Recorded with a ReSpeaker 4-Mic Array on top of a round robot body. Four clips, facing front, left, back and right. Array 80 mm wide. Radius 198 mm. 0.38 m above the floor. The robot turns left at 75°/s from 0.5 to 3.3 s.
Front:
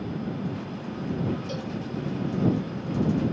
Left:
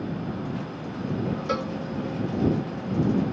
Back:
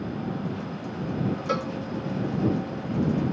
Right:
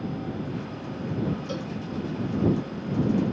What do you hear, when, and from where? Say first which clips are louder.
1.5 s a cowbell: left 5 dB, back 6 dB; 145° left; by 1.7 s 130° left